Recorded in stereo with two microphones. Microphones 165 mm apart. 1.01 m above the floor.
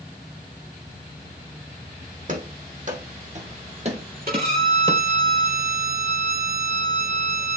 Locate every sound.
2.3 s running footsteps: 55° right (ahead or behind), 2.5 m; by 5.0 s 25° right (ahead or behind), 1.3 m
4.3 s a violin: 65° right (ahead or behind), 2.5 m